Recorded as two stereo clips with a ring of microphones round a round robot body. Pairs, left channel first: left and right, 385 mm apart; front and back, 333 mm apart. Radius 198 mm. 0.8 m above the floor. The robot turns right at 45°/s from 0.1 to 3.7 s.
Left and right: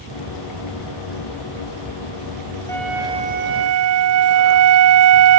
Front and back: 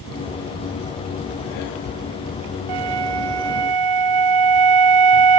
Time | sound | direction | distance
2.7 | a flute | 175° left | ?